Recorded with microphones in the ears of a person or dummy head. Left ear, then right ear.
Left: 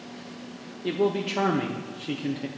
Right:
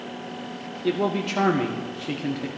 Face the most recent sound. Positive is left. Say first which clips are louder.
# right 1 dB
turn(degrees=-10)  # may be behind; listen again after turning